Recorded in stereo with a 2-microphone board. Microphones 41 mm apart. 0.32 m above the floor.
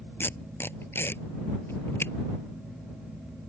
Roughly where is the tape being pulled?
Left.